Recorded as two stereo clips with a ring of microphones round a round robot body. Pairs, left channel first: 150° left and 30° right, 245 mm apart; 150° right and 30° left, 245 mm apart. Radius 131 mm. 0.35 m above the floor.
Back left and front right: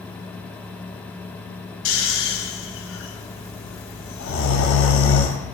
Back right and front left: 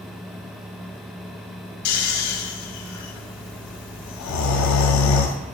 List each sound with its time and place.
1.9 s snoring: 170° right, 0.5 m